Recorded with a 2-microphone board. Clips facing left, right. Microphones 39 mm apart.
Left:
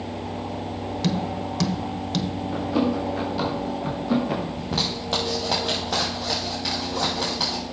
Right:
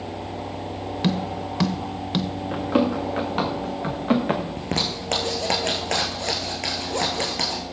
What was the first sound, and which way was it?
Tapping, 25° right (ahead or behind).